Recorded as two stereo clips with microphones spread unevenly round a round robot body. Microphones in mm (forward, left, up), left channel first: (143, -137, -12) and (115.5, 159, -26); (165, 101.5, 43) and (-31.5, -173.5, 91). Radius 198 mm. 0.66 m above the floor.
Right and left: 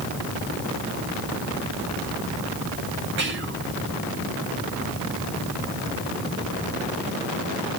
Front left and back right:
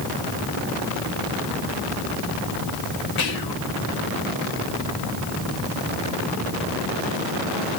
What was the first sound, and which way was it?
Whispering, 45° left.